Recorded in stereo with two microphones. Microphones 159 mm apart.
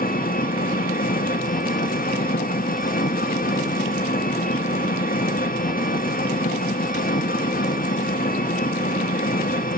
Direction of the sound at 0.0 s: 65° left (ahead or behind).